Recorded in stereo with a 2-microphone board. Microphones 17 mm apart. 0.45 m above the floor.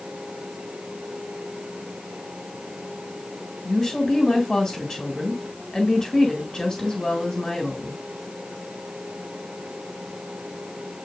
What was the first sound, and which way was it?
A woman speaking, 35° left (ahead or behind).